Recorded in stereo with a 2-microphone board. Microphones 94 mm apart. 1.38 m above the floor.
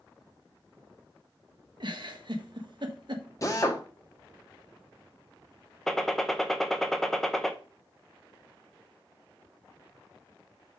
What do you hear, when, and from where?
1.8 s a giggle: 55° right (ahead or behind), 1.2 m
3.4 s a drill: 35° left (ahead or behind), 1.2 m
5.9 s a gunshot: 5° left (ahead or behind), 0.7 m